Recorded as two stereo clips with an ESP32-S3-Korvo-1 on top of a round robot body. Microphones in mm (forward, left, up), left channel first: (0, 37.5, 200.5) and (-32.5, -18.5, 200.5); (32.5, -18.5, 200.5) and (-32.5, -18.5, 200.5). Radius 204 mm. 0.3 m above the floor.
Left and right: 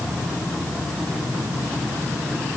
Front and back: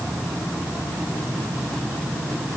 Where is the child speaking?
I don't hear a child speaking.